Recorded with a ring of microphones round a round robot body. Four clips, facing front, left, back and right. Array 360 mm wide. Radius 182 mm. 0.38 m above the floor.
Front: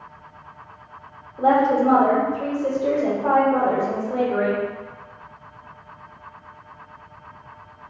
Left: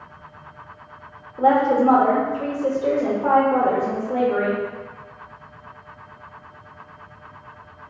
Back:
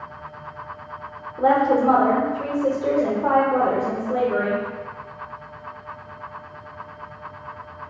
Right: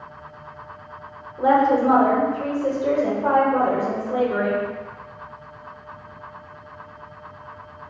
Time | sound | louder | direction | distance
1.4 | a woman speaking | even, even | 135° left | 0.9 m